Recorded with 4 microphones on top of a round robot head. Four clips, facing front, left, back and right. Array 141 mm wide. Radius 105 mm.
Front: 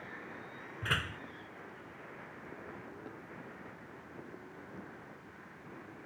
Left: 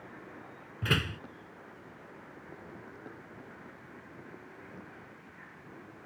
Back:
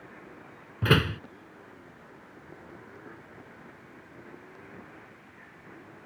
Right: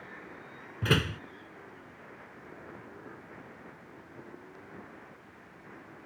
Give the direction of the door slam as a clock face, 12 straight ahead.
5 o'clock.